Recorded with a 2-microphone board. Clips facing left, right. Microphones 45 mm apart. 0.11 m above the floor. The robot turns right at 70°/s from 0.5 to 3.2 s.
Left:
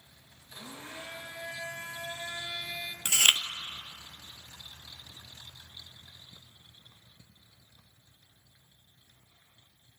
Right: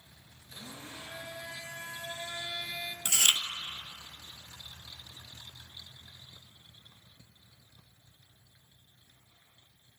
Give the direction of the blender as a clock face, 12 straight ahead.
12 o'clock.